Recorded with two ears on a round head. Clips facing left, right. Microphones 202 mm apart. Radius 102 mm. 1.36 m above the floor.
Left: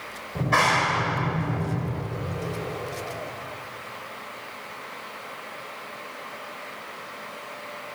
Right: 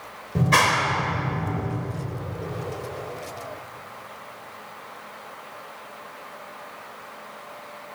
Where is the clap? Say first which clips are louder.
Right 2 dB; 40° right (ahead or behind), 4 m.